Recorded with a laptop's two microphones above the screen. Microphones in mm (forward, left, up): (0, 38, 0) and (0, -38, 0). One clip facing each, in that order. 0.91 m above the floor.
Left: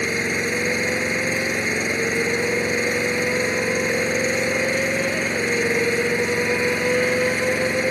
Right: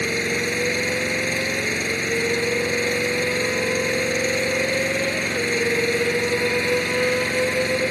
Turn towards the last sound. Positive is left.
turn(degrees=15)  # may be behind; listen again after turning